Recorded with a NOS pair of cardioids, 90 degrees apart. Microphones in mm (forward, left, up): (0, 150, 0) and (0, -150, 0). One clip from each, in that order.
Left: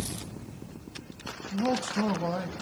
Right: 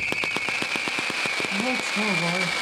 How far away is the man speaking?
About 0.9 m.